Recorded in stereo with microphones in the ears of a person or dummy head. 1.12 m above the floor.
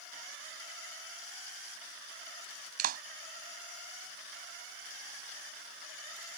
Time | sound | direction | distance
2.8 | a clap | 45° right (ahead or behind) | ?